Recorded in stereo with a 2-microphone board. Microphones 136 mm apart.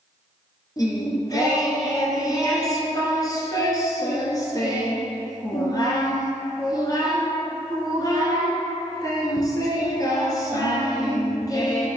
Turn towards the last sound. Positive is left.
turn(degrees=30)  # may be behind; listen again after turning